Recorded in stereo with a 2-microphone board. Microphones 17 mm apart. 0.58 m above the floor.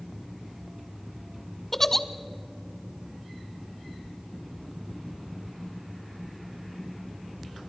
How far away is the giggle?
About 0.8 m.